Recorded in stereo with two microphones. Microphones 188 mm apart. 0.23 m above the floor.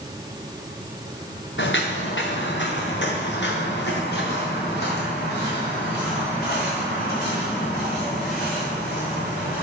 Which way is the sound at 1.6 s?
80° left.